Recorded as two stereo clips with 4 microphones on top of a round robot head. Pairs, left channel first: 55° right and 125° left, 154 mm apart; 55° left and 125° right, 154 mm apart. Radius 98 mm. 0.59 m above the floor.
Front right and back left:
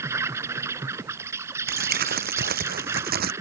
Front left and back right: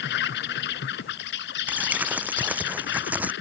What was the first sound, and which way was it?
An insect, 50° left.